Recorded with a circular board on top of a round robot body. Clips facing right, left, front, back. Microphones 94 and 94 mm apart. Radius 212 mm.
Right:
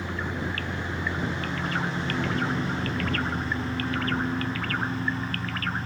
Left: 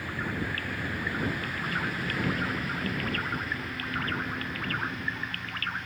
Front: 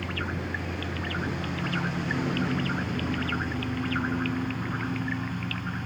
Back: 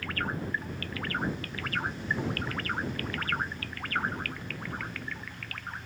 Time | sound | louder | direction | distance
0.0 | a lawn mower | right 2 dB, front 1 dB | 25° right | ?